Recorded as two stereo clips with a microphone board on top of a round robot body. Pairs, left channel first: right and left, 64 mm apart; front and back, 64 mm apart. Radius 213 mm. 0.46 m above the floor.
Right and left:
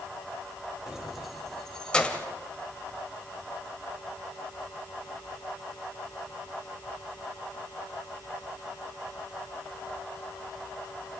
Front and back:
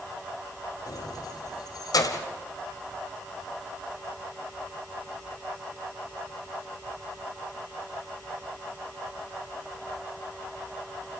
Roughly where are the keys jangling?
Ahead.